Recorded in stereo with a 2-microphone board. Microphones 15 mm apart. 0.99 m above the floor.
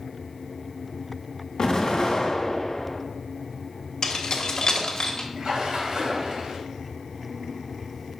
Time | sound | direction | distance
1.6 | an explosion | 55° left (ahead or behind) | 1.7 m
4.0 | keys jangling | 55° left (ahead or behind) | 1.2 m
5.4 | a splash | 65° right (ahead or behind) | 2.5 m